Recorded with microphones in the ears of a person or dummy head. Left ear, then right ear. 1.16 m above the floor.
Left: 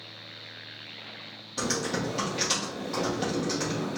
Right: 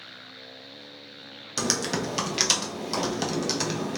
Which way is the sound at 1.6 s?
45° right (ahead or behind).